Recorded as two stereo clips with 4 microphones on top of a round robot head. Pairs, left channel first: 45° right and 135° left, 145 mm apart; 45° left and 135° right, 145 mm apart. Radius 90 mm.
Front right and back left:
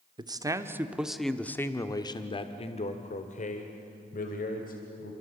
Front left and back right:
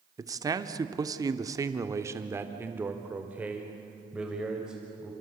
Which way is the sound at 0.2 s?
175° left.